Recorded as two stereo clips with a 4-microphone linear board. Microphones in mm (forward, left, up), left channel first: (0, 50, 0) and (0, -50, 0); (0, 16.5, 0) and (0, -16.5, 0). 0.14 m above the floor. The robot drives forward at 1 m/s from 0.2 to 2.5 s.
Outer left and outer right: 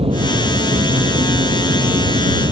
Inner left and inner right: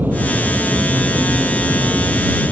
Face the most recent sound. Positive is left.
turn(degrees=-70)  # may be behind; listen again after turning